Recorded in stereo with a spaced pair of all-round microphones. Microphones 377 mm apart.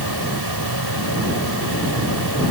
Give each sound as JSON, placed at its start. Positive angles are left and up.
{"t": 0.0, "sound": "a fan", "side_deg": -80}